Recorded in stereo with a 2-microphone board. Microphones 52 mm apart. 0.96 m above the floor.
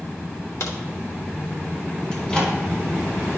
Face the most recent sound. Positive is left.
turn(degrees=15)  # may be behind; listen again after turning